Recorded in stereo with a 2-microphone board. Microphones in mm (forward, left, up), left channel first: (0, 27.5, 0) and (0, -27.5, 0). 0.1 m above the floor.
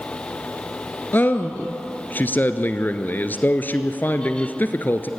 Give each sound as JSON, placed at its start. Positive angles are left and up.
{"t": 1.1, "sound": "a man speaking", "side_deg": 35, "distance_m": 1.3}